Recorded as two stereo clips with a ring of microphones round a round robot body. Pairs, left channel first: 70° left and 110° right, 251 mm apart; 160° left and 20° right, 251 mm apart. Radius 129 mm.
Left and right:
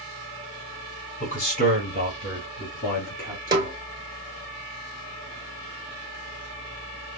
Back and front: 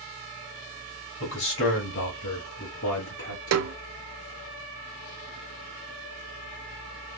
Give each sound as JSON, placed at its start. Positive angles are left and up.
{"t": 1.2, "sound": "a man speaking", "azimuth_deg": 125, "distance_m": 2.0}
{"t": 3.5, "sound": "a snare drum", "azimuth_deg": -40, "distance_m": 1.0}